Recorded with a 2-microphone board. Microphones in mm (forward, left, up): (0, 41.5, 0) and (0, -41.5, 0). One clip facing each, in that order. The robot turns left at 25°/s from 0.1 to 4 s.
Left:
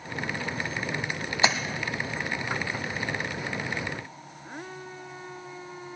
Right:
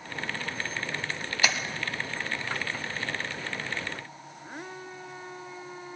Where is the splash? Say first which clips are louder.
Left 4 dB; 25° left (ahead or behind), 1.1 m; by 1.6 s 20° left (ahead or behind), 1.1 m.